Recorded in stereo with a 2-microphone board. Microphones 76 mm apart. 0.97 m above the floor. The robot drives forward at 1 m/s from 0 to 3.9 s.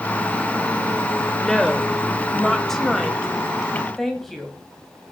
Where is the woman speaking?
5° left (ahead or behind), 3 m.